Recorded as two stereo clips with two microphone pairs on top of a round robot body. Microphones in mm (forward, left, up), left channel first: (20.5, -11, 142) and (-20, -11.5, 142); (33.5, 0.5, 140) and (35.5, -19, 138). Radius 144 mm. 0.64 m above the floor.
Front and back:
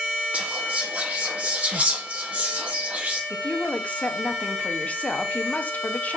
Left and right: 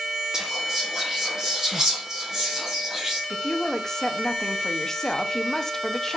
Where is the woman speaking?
30° left, 0.7 m.